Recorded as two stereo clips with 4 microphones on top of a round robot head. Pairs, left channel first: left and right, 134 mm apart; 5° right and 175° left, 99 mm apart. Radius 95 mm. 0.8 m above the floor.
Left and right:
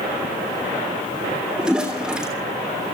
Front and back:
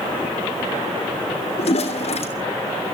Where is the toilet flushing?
5° right, 3 m.